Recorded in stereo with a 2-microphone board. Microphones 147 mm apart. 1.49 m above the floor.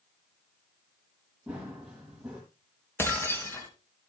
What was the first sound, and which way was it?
Running footsteps, 5° right (ahead or behind).